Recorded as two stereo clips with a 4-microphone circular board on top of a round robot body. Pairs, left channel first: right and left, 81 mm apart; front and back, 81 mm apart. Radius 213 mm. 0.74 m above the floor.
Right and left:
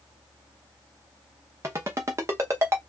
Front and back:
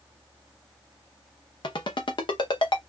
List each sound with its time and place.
1.6 s a ringtone: 30° left, 0.7 m